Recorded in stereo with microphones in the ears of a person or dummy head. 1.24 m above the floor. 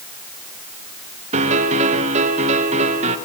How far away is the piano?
About 1.3 m.